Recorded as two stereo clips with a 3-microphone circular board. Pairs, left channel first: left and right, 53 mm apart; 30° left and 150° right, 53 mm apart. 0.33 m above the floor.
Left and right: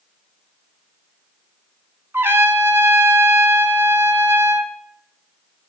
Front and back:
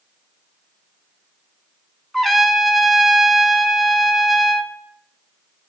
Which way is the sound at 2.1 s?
55° right.